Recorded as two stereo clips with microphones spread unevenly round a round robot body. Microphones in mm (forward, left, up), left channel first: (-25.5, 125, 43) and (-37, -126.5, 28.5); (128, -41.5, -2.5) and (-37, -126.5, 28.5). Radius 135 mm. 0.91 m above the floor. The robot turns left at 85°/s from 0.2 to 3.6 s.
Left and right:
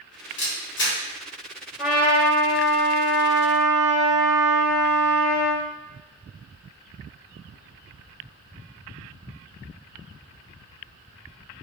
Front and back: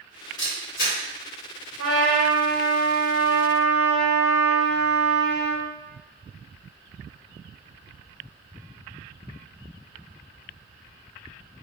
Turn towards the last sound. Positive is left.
turn(degrees=35)